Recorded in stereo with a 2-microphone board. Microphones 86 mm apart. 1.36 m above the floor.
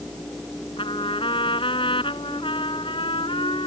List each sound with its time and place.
0.8 s a trumpet: 85° left